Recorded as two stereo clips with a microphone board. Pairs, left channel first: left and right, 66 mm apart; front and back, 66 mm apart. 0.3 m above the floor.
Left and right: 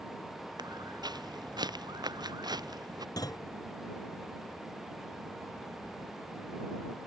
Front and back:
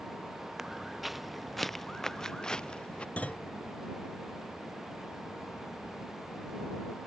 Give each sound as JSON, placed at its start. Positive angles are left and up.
{"t": 0.6, "sound": "footsteps", "azimuth_deg": -95}
{"t": 3.2, "sound": "a clunk", "azimuth_deg": 70}